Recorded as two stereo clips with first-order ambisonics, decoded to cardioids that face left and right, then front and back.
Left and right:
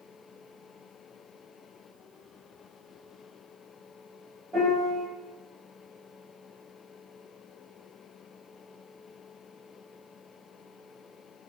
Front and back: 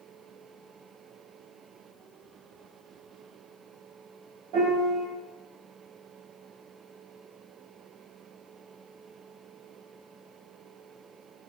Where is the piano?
170° right, 1.3 m.